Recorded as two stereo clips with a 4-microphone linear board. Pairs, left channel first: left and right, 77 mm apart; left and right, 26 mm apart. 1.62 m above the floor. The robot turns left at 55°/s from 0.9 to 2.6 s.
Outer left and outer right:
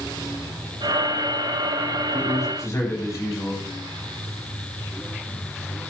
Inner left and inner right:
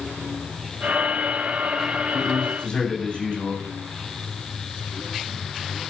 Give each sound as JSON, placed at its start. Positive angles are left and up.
{"t": 2.1, "sound": "a man speaking", "side_deg": 65, "distance_m": 9.5}